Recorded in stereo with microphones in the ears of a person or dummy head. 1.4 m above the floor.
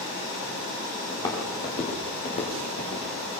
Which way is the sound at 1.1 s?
25° left (ahead or behind).